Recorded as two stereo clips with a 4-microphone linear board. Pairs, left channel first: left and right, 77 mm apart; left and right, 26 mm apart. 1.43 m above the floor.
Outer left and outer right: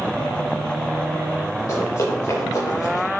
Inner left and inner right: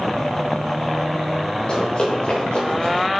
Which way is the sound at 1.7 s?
45° left (ahead or behind).